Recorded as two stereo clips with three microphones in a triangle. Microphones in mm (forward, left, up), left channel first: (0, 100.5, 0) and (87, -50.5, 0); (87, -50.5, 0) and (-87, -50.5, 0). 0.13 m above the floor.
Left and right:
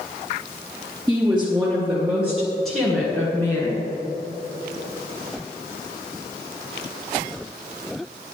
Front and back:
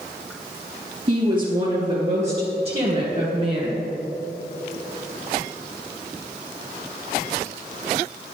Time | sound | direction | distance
1.1 | a woman speaking | 135° right | 3 m